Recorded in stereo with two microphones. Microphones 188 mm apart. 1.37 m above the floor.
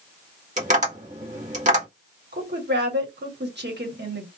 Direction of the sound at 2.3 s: 65° right (ahead or behind).